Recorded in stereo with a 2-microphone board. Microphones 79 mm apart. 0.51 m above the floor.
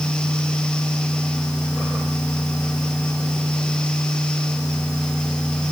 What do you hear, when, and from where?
Only background noise.